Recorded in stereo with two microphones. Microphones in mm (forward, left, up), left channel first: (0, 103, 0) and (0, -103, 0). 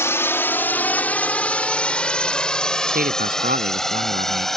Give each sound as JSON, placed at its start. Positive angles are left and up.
{"t": 0.0, "sound": "a drone", "side_deg": 10}
{"t": 2.9, "sound": "a man speaking", "side_deg": -45}